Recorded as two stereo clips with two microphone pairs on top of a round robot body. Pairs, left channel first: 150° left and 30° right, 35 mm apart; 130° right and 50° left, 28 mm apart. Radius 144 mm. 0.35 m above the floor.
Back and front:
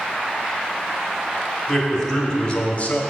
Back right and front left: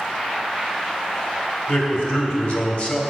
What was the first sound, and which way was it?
A man speaking, 135° right.